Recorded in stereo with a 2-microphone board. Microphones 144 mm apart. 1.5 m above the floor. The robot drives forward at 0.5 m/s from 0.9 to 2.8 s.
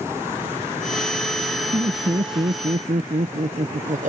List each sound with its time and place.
1.7 s laughter: 40° right (ahead or behind); by 4.1 s 60° right (ahead or behind)